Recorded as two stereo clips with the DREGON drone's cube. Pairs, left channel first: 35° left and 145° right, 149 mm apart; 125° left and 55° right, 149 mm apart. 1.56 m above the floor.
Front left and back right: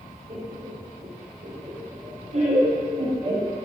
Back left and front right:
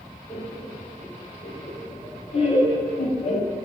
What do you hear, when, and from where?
0.3 s laughter: 175° right, 3 m; by 3.6 s 150° left, 1.1 m